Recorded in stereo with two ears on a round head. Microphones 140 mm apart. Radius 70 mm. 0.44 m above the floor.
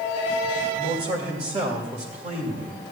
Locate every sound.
0.8 s a man speaking: 40° right (ahead or behind), 1.9 m